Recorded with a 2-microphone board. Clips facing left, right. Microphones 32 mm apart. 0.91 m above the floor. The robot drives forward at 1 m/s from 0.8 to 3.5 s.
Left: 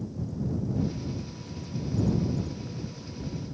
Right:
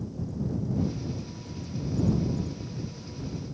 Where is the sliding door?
No sliding door in this recording.